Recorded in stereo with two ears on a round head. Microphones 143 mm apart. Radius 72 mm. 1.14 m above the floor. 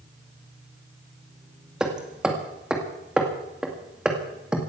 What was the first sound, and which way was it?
Hammering, 5° right (ahead or behind).